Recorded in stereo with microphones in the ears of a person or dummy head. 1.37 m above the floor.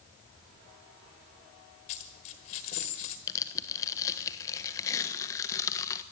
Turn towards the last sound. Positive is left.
turn(degrees=15)  # may be behind; listen again after turning